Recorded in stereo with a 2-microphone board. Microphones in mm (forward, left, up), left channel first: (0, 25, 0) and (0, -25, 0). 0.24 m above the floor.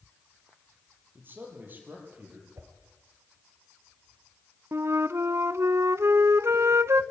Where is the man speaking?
40° right (ahead or behind), 6 m; by 2.5 s 35° right (ahead or behind), 6.5 m.